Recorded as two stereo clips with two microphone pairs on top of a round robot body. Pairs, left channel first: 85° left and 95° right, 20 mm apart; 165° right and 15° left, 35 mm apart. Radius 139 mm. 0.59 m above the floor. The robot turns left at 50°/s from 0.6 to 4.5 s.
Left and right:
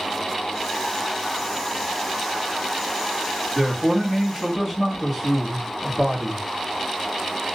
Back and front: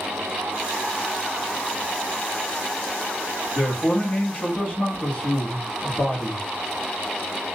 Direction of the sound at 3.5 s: 135° right.